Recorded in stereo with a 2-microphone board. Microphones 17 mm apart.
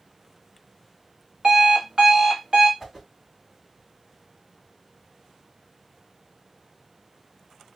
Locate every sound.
1.4 s an alarm clock: 50° right (ahead or behind), 1.3 m
2.8 s a whoosh: 20° right (ahead or behind), 1.4 m